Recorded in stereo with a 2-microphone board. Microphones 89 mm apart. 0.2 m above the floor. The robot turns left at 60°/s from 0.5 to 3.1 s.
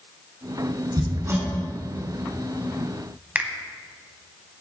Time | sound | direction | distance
1.0 | hammering | 45° right (ahead or behind) | 1.6 m
3.4 | a finger snap | 20° right (ahead or behind) | 0.8 m